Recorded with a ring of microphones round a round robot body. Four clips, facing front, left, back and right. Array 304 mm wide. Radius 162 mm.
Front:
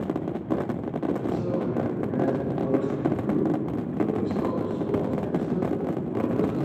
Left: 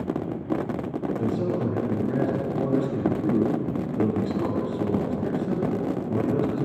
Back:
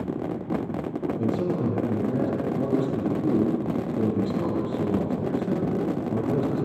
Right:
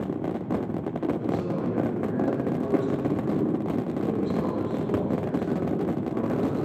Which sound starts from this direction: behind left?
A man speaking, at 1.2 s.